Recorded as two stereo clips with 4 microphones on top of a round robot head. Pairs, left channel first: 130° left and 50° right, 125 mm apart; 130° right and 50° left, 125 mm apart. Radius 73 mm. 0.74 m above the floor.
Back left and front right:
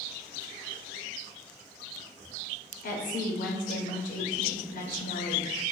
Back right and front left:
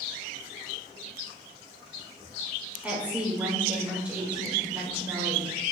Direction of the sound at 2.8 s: 130° left.